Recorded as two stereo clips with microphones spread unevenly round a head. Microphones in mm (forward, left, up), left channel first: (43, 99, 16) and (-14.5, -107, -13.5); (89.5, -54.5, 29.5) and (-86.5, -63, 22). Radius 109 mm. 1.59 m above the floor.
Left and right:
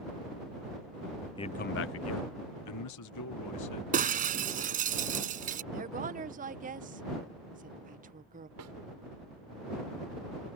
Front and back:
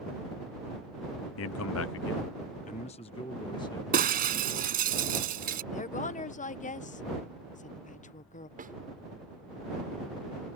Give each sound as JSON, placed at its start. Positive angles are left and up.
{"t": 1.4, "sound": "a man speaking", "azimuth_deg": 0}
{"t": 3.9, "sound": "breaking glass", "azimuth_deg": -160}
{"t": 5.7, "sound": "a woman speaking", "azimuth_deg": -50}
{"t": 8.6, "sound": "a snare drum", "azimuth_deg": -130}